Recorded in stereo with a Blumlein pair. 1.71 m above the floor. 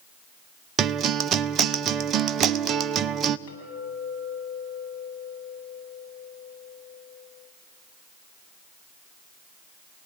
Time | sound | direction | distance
0.8 | a guitar | 25° right | 0.7 m
3.5 | a clink | 55° left | 9 m